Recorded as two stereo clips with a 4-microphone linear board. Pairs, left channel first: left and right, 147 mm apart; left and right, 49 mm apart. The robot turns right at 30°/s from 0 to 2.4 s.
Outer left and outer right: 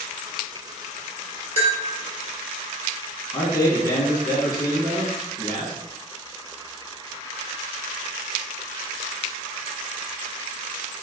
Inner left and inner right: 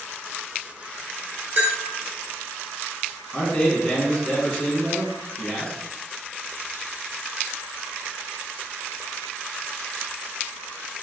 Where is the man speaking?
25° left (ahead or behind), 1.2 m.